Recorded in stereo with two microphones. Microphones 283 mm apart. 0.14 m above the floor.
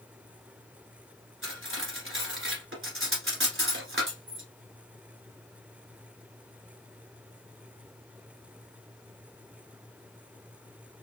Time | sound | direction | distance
1.4 | cutlery clinking | 50° right (ahead or behind) | 1.4 m